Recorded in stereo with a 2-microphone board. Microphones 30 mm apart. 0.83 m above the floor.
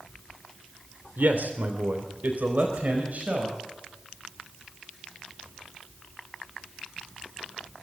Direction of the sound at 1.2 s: 75° right (ahead or behind).